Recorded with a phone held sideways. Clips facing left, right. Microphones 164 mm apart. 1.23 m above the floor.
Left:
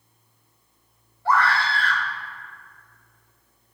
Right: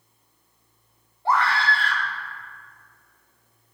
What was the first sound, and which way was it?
A scream, 25° right (ahead or behind).